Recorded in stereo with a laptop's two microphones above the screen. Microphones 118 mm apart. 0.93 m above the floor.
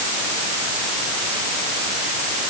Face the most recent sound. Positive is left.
No sound to turn to.